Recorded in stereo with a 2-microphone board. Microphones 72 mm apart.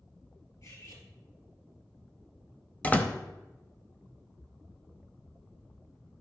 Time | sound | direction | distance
0.6 | cutlery clinking | 55° left (ahead or behind) | 3 m
2.8 | a door slam | 20° left (ahead or behind) | 0.8 m